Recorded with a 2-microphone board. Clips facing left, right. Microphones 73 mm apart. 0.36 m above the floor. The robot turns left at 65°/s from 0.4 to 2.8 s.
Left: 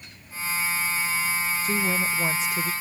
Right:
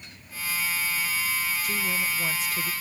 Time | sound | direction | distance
1.6 | a woman speaking | 100° left | ?